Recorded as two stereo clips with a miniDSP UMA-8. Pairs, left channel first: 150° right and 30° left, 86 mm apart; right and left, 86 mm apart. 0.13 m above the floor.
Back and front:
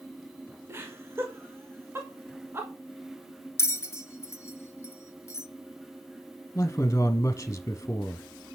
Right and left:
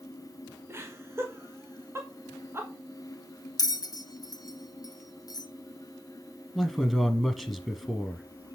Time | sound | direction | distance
0.7 | laughter | 60° left | 1.6 m
3.6 | a bell | 105° right | 0.5 m
6.5 | a man speaking | 175° left | 1.4 m